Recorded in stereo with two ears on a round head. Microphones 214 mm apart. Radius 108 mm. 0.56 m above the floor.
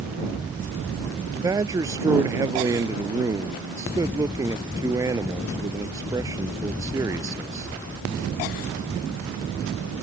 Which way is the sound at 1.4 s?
15° right (ahead or behind).